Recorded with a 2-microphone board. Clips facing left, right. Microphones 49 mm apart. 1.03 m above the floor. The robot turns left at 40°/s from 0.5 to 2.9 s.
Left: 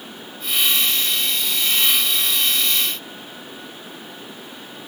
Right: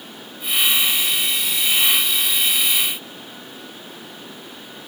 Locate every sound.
Only background noise.